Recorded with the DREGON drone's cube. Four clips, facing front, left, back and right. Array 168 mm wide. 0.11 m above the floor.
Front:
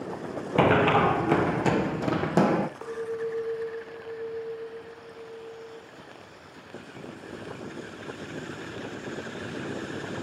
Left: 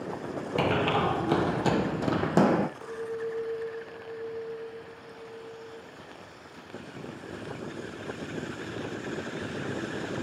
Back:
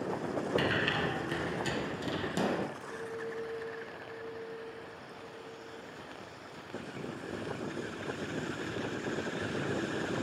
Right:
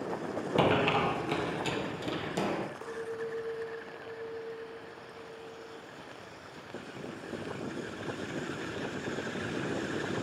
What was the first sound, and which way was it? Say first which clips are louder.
Running footsteps: left 1 dB, front 11 dB; 10° right.